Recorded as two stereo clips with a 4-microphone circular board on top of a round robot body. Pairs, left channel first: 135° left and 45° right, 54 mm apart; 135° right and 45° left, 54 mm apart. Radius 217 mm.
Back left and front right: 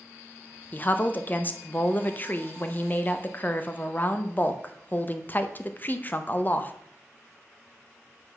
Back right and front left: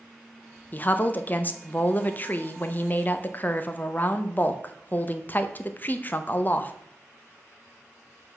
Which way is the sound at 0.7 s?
Straight behind.